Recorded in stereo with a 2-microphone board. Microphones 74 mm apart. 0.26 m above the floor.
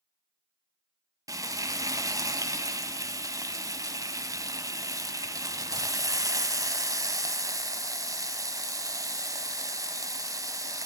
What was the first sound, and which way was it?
Frying, 50° right (ahead or behind).